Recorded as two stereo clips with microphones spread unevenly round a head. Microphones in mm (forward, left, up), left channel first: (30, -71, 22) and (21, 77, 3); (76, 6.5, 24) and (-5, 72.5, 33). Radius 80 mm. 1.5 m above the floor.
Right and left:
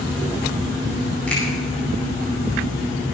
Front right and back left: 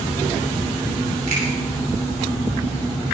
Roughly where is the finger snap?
Behind.